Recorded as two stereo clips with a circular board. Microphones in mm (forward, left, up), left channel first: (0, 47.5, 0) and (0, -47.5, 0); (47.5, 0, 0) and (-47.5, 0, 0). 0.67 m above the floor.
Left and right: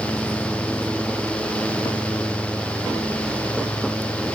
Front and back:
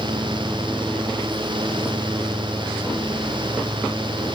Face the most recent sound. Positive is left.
No sound to turn to.